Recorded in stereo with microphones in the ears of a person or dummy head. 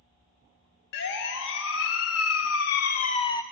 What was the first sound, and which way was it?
A siren, 65° left (ahead or behind).